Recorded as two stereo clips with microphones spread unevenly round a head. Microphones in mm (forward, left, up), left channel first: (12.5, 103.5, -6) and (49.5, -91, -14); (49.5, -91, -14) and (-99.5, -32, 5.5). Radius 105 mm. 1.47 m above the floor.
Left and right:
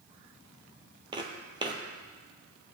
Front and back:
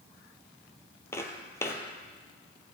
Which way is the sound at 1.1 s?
85° right.